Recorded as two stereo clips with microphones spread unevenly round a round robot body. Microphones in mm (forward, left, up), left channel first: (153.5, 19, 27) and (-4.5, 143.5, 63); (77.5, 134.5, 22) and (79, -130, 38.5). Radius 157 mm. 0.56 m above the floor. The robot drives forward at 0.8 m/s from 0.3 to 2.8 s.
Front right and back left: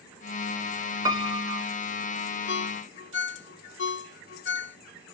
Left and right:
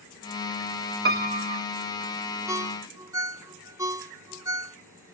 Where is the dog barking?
No dog barking in this recording.